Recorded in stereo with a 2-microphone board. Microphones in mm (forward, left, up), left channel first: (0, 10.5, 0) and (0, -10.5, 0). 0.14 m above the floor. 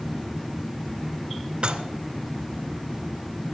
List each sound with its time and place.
1.6 s dishes clattering: 45° right (ahead or behind), 1.2 m